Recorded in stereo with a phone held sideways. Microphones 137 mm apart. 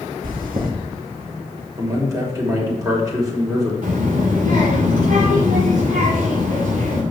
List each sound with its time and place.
0.2 s chewing: 80° right, 1.8 m
1.8 s a man speaking: 25° right (ahead or behind), 3 m
3.8 s a child speaking: 80° right, 2.5 m